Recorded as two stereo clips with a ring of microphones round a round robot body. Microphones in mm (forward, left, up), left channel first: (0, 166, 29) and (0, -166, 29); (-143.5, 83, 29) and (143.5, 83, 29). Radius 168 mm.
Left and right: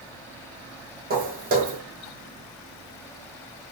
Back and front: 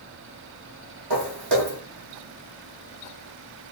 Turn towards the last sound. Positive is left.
turn(degrees=-25)